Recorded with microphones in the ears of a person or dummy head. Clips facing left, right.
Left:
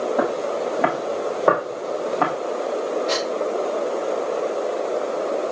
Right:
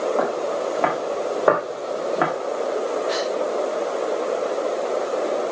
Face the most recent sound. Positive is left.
turn(degrees=50)  # may be behind; listen again after turning